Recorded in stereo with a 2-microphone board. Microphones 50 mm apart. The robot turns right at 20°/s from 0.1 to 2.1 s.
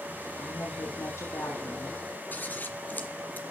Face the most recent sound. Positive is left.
turn(degrees=35)  # may be behind; listen again after turning